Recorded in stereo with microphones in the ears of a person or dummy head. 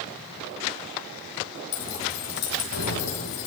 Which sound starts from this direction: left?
Keys jangling, at 1.7 s.